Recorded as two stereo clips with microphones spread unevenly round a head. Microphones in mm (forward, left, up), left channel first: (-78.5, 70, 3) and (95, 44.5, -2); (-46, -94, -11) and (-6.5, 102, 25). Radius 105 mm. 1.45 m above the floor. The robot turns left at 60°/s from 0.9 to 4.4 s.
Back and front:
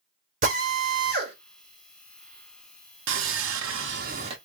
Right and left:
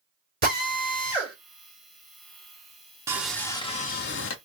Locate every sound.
0.4 s a drill: 35° left, 2.5 m; by 1.4 s 10° left, 2.5 m
3.1 s sawing: straight ahead, 0.7 m; by 4.3 s 75° right, 0.7 m